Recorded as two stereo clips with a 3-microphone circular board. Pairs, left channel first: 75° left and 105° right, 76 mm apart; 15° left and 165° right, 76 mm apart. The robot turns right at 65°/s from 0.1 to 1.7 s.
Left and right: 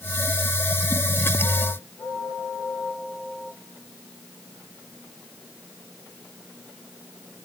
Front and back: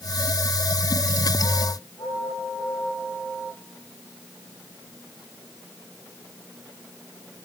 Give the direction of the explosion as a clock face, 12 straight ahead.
No explosion in this recording.